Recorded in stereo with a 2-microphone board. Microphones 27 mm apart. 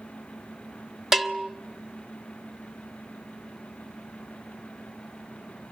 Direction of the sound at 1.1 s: 15° right (ahead or behind).